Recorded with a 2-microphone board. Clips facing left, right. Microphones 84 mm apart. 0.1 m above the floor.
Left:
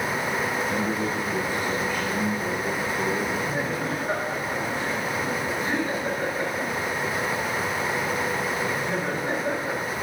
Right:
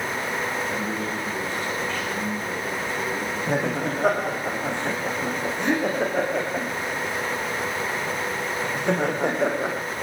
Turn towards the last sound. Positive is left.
turn(degrees=-80)